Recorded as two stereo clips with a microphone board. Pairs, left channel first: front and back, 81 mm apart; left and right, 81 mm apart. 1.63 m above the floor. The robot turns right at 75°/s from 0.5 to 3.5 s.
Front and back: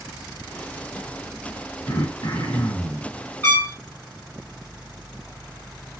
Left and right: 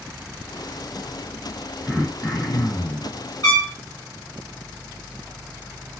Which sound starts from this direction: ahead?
Throat clearing, at 1.9 s.